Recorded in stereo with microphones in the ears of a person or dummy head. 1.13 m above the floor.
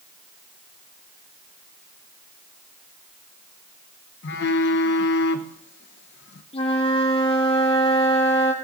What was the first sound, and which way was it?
A phone buzzing, 60° left (ahead or behind).